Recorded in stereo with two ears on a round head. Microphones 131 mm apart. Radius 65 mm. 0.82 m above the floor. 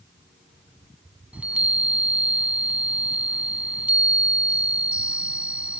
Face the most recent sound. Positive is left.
turn(degrees=-10)  # may be behind; listen again after turning